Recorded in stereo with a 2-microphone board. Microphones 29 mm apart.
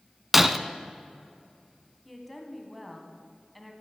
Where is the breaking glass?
10° right (ahead or behind), 0.6 m.